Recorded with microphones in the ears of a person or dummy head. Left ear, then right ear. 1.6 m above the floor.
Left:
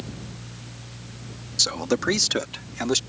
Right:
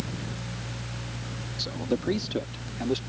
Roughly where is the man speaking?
Left.